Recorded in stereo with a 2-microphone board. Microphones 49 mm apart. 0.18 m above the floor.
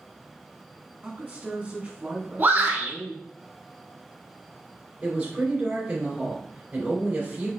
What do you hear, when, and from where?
1.0 s a man speaking: 30° right (ahead or behind), 1.6 m
2.4 s a shout: 45° right (ahead or behind), 1.5 m
5.0 s a woman speaking: 25° right (ahead or behind), 2.5 m